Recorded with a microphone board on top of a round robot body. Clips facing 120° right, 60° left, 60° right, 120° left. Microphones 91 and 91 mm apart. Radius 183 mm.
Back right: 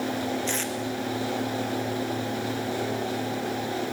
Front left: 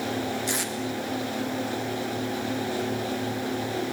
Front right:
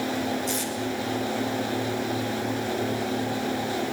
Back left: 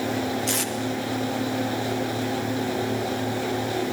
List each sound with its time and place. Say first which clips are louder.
0.5 s tape being pulled: even, back left 2 dB; 140° left, 3.5 m